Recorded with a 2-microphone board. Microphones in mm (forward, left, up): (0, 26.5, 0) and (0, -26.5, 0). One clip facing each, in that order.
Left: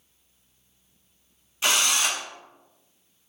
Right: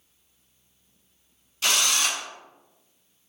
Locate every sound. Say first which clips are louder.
1.6 s a drill: left 1 dB; 20° left (ahead or behind), 0.7 m